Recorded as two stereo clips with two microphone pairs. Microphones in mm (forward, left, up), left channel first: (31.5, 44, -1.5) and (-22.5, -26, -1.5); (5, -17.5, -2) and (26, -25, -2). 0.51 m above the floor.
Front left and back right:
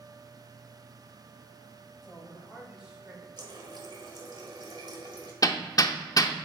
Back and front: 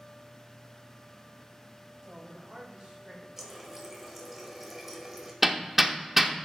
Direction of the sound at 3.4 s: 95° right.